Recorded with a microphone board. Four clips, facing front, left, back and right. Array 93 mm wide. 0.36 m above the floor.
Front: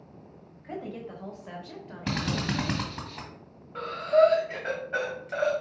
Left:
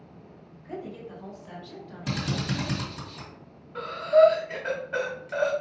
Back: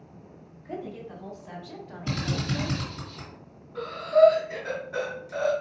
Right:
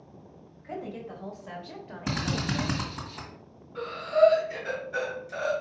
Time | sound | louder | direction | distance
0.6 | a woman speaking | right 1 dB, even | 25° right | 1.7 m
2.1 | a drill | even, front 1 dB | 25° right | 1.9 m
3.8 | breathing | left 4 dB, back 2 dB | 45° left | 1.7 m